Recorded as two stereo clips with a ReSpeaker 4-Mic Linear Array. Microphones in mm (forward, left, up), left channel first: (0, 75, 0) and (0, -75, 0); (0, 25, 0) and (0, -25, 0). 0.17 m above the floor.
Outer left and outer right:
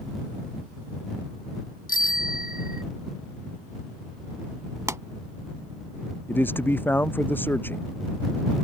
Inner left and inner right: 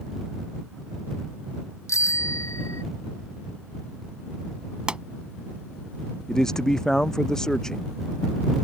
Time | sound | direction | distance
1.9 | a bicycle bell | 75° left (ahead or behind) | ?
4.9 | a pop | 20° right (ahead or behind) | ?
6.3 | a man speaking | 15° left (ahead or behind) | ?